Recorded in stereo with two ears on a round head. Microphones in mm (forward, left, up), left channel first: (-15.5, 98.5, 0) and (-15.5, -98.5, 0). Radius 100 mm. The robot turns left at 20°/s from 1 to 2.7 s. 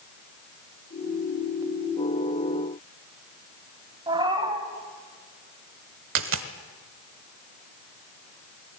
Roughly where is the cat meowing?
Right.